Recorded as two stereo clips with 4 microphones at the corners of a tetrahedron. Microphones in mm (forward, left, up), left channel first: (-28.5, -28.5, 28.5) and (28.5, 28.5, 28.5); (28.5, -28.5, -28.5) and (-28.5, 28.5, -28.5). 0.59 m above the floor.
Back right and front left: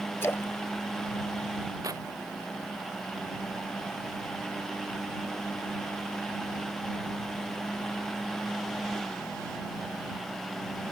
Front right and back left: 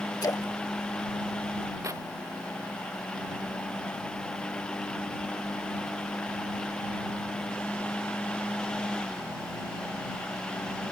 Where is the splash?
80° right.